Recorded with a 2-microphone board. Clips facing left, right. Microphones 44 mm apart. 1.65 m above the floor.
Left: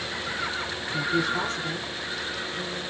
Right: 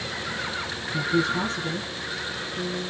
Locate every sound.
0.9 s a woman speaking: centre (ahead or behind), 1.0 m